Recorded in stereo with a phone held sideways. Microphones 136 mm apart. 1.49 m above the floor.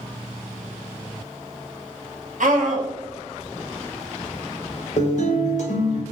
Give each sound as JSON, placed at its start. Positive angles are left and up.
{"t": 2.4, "sound": "a scream", "side_deg": -65, "distance_m": 0.9}
{"t": 5.0, "sound": "a guitar", "side_deg": 60, "distance_m": 0.7}